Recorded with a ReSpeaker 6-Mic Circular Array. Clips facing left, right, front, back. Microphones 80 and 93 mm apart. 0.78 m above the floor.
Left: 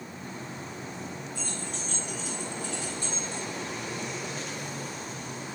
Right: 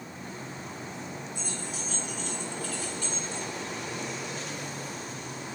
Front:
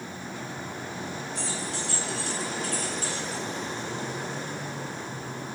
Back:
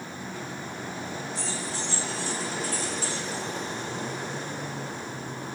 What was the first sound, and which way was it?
Keys jangling, 20° right.